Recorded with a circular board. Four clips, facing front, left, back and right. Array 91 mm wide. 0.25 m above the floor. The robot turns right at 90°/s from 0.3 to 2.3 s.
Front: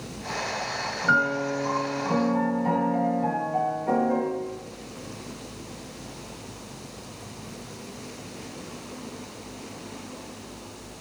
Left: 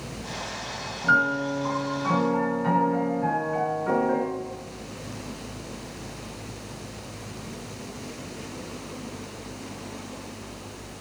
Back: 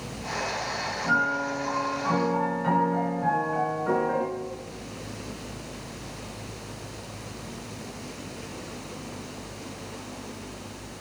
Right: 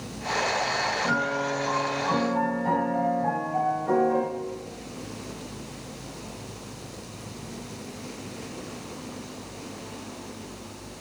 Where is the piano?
30° left, 3 m; by 4.2 s 140° left, 3 m.